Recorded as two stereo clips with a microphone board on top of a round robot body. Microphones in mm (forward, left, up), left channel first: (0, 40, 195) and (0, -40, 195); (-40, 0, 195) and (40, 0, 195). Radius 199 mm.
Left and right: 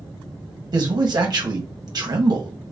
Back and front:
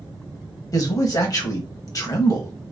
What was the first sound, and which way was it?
A man speaking, 130° right.